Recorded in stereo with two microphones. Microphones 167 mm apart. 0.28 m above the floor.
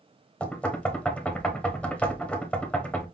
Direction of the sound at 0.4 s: 10° left (ahead or behind).